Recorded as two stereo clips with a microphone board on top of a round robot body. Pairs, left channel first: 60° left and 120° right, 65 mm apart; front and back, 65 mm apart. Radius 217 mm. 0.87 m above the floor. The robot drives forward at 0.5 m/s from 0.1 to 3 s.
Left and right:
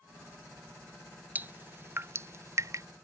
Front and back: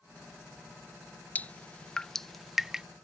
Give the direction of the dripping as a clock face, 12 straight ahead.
2 o'clock.